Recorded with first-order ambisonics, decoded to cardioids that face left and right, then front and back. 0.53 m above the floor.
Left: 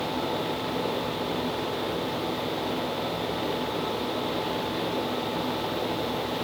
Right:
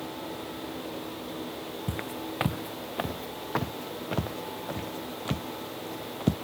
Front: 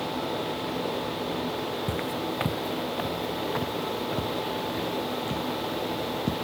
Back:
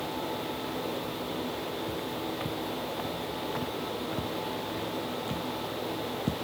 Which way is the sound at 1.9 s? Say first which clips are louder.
Left 7 dB, front 4 dB; 50° right.